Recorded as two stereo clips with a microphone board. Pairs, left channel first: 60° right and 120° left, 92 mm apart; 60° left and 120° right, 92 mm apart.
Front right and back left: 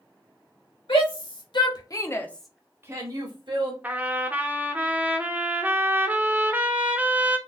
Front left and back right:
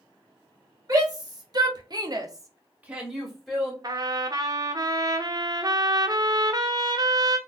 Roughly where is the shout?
Right.